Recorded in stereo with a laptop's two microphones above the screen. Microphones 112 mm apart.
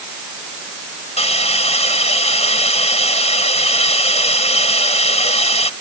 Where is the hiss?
75° left (ahead or behind).